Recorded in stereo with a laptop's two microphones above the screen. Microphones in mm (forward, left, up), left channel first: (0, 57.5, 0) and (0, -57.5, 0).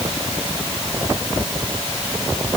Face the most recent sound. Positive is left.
No sound to turn to.